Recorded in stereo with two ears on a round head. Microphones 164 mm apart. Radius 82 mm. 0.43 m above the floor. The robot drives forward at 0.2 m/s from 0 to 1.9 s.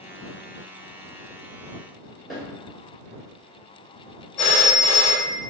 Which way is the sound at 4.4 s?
15° left (ahead or behind).